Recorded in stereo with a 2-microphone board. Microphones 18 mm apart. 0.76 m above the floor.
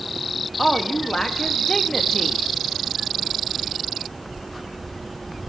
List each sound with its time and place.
0.6 s a woman speaking: 30° left (ahead or behind), 0.6 m